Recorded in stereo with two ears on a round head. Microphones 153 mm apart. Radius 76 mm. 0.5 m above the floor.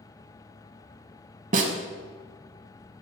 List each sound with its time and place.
1.5 s a snare drum: 45° right (ahead or behind), 0.8 m